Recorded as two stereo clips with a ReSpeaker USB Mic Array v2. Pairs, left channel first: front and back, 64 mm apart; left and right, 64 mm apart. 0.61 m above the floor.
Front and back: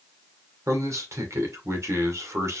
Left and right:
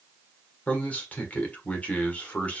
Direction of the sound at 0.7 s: 155° left.